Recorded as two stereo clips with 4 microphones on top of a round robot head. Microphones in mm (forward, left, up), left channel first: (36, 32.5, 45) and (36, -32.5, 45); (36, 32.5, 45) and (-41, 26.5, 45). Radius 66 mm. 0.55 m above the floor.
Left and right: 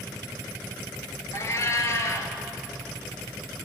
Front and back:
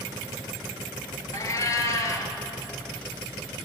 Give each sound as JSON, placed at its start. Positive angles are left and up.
{"t": 1.3, "sound": "a cat meowing", "azimuth_deg": 50, "distance_m": 0.9}